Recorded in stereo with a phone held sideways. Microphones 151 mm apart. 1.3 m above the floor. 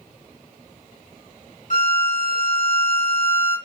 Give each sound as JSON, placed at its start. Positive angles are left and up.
{"t": 1.7, "sound": "a violin", "side_deg": 55, "distance_m": 0.8}